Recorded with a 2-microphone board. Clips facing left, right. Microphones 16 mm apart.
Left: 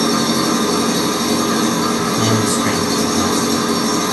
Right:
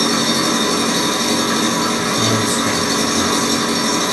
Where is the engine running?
30° right (ahead or behind), 0.8 m.